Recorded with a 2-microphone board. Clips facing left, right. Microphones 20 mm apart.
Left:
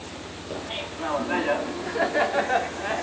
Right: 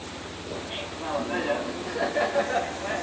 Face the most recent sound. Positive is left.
turn(degrees=55)  # may be behind; listen again after turning